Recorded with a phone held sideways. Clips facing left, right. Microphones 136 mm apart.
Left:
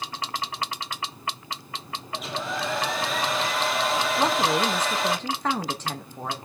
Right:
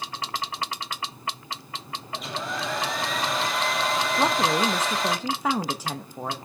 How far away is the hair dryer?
About 1.3 m.